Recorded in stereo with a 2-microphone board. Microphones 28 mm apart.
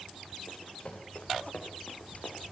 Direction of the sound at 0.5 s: 45° left (ahead or behind).